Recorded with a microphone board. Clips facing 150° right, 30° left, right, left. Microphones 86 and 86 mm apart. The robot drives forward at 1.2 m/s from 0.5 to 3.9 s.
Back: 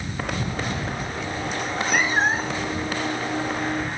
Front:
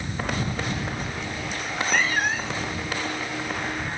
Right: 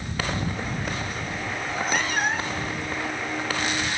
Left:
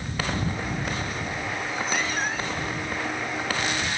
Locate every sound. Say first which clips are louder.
1.6 s a cat meowing: back 1 dB, right 3 dB; 50° right; by 2.7 s 130° right